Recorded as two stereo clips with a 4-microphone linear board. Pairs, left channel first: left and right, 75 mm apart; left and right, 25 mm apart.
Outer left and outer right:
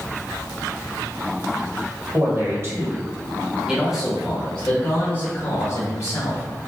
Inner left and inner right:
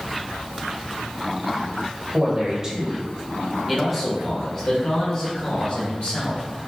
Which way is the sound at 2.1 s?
40° right (ahead or behind).